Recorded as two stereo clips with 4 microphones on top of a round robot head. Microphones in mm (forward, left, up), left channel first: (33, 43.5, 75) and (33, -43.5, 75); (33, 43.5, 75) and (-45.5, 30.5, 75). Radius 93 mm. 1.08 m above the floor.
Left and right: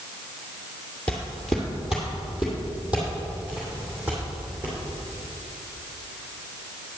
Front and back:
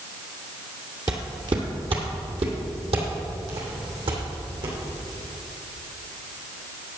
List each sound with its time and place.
1.1 s footsteps: 170° left, 1.2 m; by 4.8 s 165° right, 4 m